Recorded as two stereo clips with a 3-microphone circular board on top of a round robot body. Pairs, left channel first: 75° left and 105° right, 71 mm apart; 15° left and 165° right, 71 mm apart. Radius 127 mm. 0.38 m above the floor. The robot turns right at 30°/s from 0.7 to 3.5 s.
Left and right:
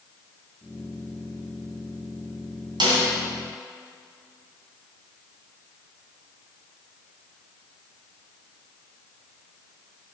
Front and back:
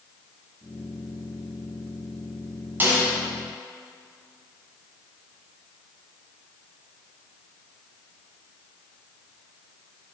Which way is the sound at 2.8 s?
100° right.